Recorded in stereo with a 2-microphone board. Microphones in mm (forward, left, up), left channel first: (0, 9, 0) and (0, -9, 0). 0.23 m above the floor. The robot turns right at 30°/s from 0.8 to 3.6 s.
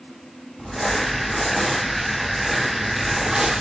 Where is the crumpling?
145° left, 2 m; by 3.6 s 135° right, 2 m.